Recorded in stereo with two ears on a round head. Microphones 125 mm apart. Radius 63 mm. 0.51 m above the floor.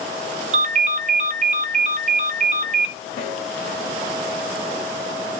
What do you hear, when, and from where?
0.5 s a ringtone: 50° right (ahead or behind), 0.9 m
3.2 s a snare drum: 40° left (ahead or behind), 6.5 m